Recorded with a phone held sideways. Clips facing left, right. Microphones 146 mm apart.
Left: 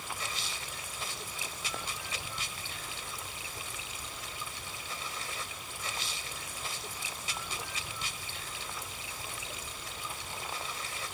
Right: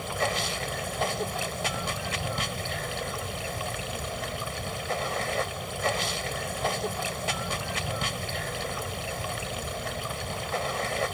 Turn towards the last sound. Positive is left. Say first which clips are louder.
# right 12 dB
turn(degrees=-70)  # may be behind; listen again after turning